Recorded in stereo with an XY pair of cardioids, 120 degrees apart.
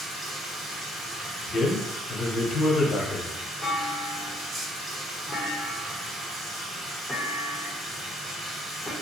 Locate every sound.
0.0 s running water: 60° right, 1.3 m
1.5 s a man speaking: 35° left, 0.9 m
3.6 s a clunk: 10° left, 0.9 m